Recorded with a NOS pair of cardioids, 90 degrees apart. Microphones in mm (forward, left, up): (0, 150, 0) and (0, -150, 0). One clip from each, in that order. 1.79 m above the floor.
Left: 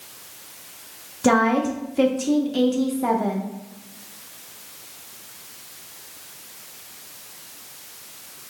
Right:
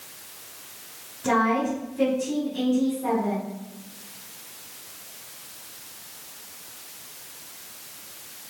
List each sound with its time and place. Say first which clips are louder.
1.2 s a woman speaking: left 3 dB; 70° left, 1.1 m